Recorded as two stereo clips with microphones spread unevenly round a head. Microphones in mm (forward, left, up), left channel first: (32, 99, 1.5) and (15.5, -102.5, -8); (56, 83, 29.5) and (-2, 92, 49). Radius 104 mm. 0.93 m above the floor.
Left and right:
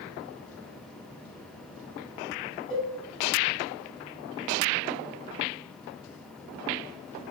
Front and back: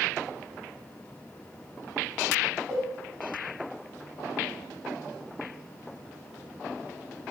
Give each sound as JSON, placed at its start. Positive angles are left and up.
{"t": 2.7, "sound": "a cowbell", "azimuth_deg": 175, "distance_m": 2.0}